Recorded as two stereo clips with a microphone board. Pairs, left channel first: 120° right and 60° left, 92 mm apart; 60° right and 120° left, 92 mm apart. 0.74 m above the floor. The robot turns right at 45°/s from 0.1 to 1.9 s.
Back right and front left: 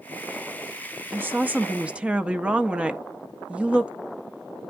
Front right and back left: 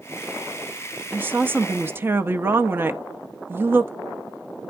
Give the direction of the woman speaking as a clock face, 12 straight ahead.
9 o'clock.